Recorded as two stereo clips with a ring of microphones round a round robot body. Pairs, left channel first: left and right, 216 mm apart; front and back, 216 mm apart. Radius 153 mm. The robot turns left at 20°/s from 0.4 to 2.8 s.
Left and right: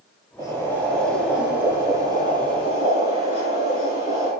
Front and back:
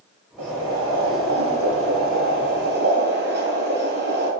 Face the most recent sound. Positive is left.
turn(degrees=145)